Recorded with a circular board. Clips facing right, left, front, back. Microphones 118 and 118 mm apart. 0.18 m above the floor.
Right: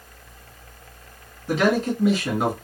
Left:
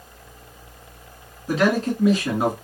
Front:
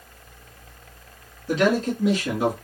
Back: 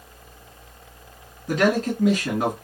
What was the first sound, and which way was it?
A man speaking, straight behind.